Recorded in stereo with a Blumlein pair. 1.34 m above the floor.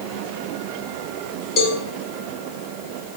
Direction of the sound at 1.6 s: 30° left.